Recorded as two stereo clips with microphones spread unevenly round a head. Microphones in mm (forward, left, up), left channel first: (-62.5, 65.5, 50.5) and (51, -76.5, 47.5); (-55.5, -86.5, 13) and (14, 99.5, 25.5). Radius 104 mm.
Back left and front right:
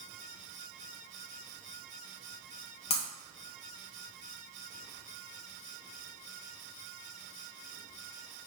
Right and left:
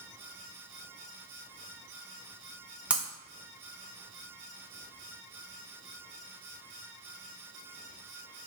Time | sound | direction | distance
2.9 | breaking glass | 140° left | 0.6 m